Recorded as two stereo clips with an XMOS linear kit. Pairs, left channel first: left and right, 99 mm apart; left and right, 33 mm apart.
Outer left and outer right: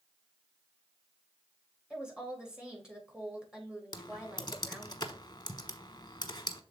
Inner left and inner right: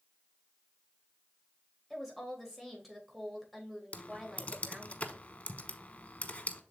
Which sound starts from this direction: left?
Typing on a keyboard, at 3.9 s.